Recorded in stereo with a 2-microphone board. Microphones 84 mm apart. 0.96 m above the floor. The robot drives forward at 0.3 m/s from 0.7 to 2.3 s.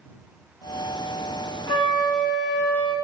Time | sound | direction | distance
1.7 | a flute | 70° left (ahead or behind) | 1.3 m